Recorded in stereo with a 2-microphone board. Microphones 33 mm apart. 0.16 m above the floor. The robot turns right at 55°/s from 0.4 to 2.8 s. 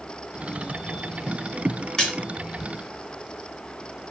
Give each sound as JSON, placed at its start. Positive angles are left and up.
{"t": 2.0, "sound": "a splash", "side_deg": 15, "distance_m": 1.3}